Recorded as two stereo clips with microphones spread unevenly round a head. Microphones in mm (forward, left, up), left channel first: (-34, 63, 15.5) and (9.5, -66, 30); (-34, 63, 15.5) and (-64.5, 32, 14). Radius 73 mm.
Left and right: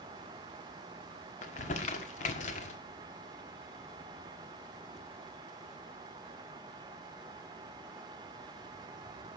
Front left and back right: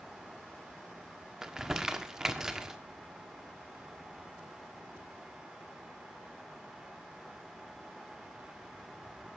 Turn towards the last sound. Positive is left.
turn(degrees=150)